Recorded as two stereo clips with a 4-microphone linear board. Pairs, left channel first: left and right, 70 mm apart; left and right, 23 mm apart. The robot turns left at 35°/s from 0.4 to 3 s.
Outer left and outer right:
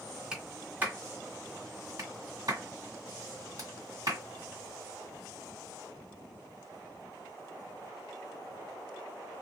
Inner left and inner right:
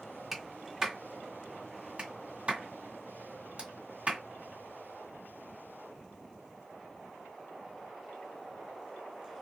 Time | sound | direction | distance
0.3 | a clap | 10° right (ahead or behind) | 1.7 m